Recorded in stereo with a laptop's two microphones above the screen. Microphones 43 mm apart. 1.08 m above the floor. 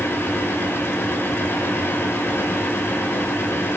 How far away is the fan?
About 3.5 m.